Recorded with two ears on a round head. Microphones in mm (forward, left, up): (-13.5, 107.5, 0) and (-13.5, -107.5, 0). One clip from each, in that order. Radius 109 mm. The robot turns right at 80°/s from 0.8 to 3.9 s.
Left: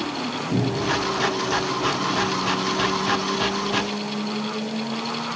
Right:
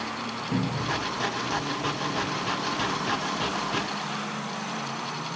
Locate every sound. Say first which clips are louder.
0.5 s a cupboard door: left 6 dB; 20° right (ahead or behind), 3 m; by 1.0 s 5° right (ahead or behind), 3 m